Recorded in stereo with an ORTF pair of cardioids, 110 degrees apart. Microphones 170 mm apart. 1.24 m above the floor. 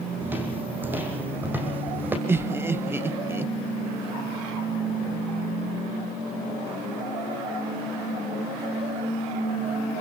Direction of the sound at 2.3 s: 15° right.